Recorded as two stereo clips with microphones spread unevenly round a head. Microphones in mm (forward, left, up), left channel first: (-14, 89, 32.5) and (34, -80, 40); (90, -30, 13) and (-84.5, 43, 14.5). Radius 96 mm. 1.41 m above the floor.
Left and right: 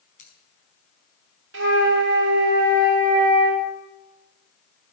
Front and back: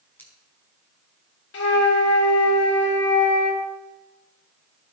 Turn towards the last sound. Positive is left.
turn(degrees=-55)